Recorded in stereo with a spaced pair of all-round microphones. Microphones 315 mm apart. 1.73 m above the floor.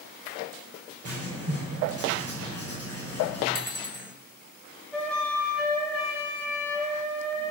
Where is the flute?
5° left (ahead or behind), 4 m.